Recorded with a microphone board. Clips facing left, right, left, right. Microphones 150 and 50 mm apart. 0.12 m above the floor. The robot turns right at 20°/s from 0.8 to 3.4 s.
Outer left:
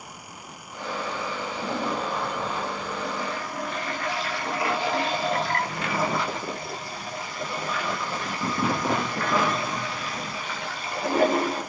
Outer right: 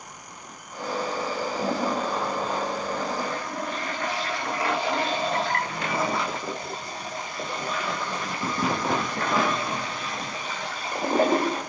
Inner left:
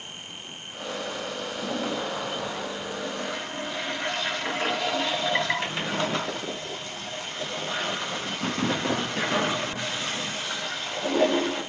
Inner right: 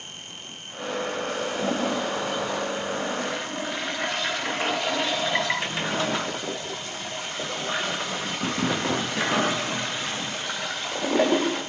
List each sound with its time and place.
1.6 s a toilet flushing: 75° right, 8.5 m; by 11.6 s 35° right, 8.5 m